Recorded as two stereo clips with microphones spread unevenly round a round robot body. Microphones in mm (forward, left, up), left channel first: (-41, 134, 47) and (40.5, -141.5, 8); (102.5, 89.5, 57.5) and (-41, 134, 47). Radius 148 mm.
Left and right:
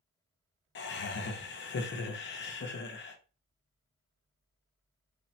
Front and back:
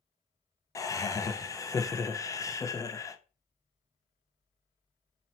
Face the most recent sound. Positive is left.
turn(degrees=55)